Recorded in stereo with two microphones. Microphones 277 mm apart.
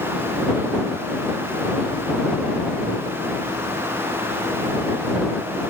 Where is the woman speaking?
I don't hear a woman speaking.